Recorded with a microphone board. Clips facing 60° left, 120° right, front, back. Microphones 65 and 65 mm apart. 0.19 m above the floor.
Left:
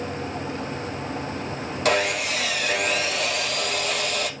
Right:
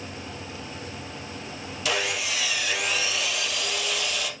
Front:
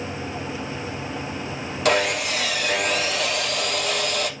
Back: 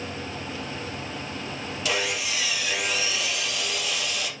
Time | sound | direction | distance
1.9 | sawing | 30° left | 2 m